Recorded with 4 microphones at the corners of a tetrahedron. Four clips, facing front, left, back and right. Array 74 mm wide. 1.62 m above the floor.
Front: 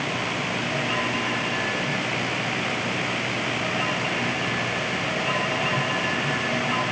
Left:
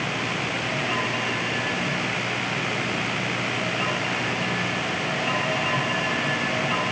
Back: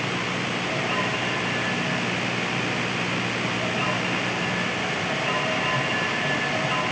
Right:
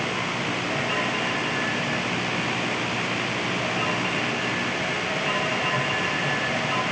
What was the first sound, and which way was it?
Only background noise.